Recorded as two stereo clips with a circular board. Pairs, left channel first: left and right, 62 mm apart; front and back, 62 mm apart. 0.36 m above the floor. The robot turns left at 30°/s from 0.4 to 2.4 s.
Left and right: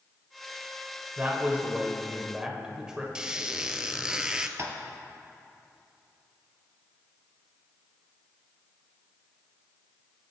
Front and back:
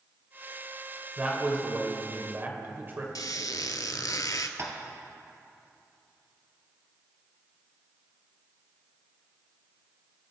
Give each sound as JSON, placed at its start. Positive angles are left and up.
{"t": 1.2, "sound": "a man speaking", "azimuth_deg": -125, "distance_m": 1.6}
{"t": 3.1, "sound": "a squeak", "azimuth_deg": -15, "distance_m": 0.7}
{"t": 4.6, "sound": "tapping", "azimuth_deg": -140, "distance_m": 1.8}